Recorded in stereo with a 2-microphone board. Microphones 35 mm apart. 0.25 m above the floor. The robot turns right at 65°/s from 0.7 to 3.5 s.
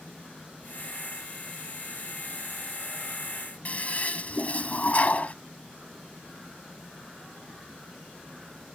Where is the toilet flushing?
45° left (ahead or behind).